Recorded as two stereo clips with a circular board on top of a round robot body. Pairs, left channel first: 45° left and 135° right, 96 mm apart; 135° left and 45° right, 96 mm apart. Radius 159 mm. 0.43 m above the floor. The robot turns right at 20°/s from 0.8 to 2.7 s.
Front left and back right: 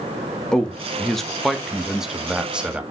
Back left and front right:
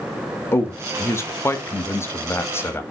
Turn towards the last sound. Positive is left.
turn(degrees=160)